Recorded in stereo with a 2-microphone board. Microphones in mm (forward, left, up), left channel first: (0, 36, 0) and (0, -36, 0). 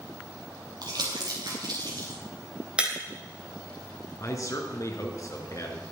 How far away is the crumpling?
About 4.5 m.